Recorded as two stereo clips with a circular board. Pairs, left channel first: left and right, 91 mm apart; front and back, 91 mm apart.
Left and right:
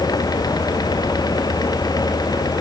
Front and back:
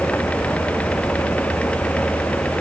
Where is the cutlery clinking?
I don't hear cutlery clinking.